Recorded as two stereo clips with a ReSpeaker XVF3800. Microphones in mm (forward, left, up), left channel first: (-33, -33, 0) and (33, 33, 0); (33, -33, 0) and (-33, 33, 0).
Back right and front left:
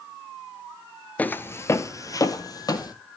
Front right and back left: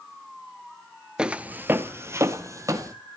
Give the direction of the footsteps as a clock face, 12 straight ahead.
6 o'clock.